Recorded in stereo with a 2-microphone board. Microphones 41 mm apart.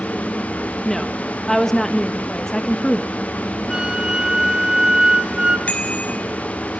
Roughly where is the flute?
Centre.